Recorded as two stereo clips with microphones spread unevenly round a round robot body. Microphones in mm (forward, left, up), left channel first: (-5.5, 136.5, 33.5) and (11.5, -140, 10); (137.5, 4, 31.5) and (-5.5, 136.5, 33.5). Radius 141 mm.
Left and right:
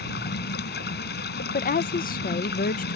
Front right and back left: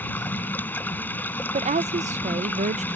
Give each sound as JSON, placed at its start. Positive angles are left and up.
{"t": 0.0, "sound": "running water", "azimuth_deg": 40}
{"t": 1.5, "sound": "a woman speaking", "azimuth_deg": 135}